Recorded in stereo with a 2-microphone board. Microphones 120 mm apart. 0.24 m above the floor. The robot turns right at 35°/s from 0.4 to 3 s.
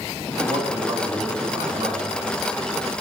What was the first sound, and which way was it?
A man speaking, 125° right.